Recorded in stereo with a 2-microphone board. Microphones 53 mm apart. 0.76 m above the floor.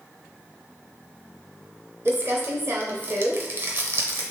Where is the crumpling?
45° right (ahead or behind), 0.7 m.